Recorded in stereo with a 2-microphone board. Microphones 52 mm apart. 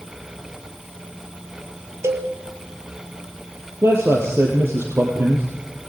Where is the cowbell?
60° right (ahead or behind), 3 m.